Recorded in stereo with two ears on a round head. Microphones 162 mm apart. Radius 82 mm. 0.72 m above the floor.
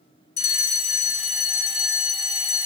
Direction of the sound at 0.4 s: 35° left (ahead or behind).